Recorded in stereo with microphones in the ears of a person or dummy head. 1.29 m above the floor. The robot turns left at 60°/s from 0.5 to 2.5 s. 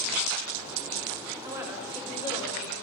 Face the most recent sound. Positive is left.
turn(degrees=145)